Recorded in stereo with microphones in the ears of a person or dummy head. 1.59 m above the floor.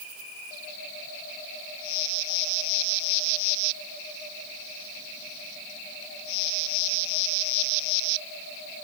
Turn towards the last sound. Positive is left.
No sound to turn to.